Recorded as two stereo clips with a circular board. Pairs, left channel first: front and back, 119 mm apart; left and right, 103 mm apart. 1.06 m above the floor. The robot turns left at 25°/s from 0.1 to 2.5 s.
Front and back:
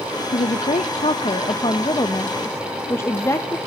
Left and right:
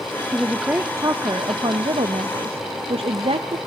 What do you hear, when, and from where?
0.3 s a woman speaking: 10° right, 0.7 m; by 3.6 s 65° right, 0.7 m